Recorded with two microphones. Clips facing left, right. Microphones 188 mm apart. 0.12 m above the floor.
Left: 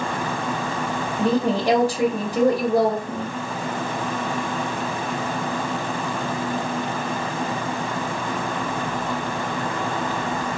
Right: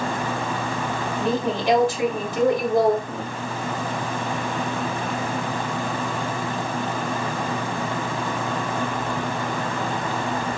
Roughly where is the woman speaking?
Left.